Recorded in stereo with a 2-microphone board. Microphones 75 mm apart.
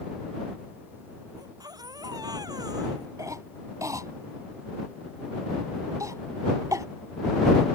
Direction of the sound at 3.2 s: 50° right (ahead or behind).